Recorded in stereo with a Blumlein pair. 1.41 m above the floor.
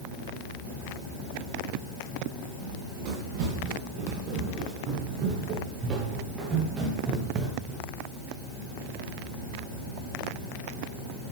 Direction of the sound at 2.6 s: 45° right.